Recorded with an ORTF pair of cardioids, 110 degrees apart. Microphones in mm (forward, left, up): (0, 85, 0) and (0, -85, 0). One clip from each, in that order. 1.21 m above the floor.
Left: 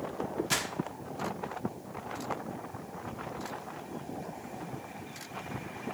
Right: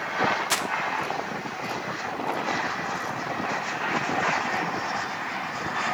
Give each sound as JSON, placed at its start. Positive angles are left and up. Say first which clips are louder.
{"t": 0.5, "sound": "crumpling", "louder": "right 5 dB", "azimuth_deg": -30, "distance_m": 1.5}